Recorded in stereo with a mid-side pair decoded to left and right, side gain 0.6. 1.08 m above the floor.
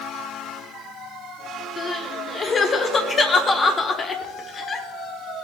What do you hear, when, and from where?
1.8 s crying: 35° left, 1.8 m